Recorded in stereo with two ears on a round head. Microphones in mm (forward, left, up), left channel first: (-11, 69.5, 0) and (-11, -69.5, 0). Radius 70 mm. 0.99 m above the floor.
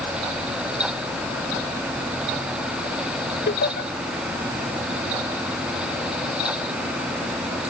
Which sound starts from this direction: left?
Laughter, at 3.5 s.